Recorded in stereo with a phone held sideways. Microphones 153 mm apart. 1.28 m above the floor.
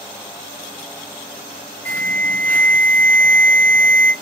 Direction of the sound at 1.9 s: 15° left (ahead or behind).